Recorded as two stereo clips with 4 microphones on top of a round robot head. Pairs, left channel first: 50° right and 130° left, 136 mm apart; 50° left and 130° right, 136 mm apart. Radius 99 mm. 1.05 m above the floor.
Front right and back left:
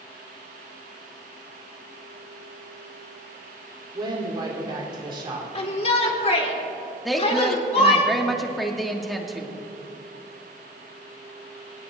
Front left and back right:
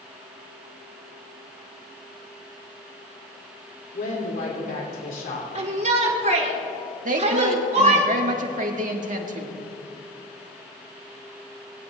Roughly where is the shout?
Right.